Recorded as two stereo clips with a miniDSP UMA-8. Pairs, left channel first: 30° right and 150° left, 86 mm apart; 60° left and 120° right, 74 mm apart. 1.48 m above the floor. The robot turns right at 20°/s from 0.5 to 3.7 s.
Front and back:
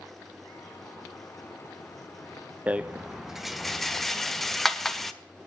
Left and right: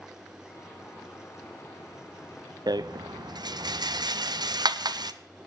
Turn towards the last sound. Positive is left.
turn(degrees=-115)